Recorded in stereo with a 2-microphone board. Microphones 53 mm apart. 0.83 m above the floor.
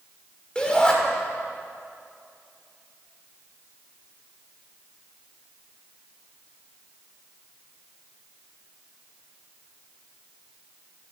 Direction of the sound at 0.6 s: 15° left (ahead or behind).